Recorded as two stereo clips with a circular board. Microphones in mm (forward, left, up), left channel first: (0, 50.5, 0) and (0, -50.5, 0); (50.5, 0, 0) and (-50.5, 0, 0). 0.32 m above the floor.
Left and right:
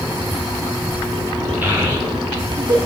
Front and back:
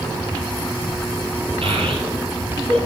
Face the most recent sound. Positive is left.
turn(degrees=-145)